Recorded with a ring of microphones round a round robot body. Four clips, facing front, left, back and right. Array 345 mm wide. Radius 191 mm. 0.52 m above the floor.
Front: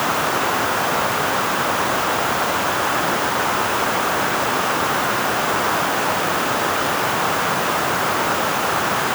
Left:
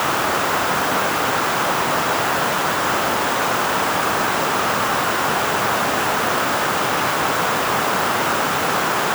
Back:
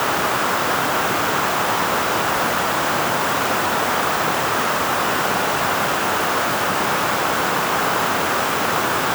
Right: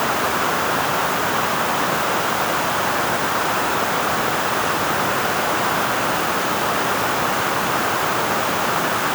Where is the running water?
I don't hear running water.